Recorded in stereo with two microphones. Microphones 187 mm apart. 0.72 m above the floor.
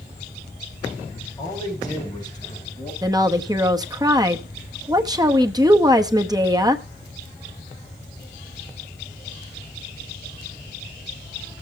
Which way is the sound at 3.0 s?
20° right (ahead or behind).